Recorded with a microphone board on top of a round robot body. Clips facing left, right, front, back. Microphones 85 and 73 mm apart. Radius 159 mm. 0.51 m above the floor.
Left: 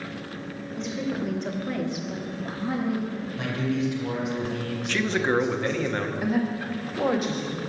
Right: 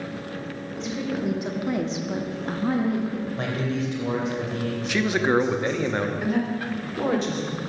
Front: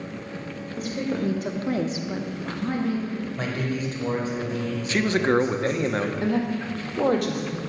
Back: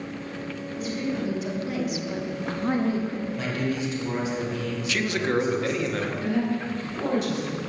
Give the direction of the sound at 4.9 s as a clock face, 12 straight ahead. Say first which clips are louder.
Right 2 dB, front 4 dB; 1 o'clock.